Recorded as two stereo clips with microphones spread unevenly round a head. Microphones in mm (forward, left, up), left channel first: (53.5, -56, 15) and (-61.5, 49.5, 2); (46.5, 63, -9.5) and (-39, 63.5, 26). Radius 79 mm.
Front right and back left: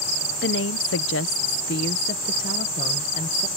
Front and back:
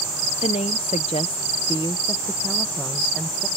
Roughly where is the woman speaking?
Ahead.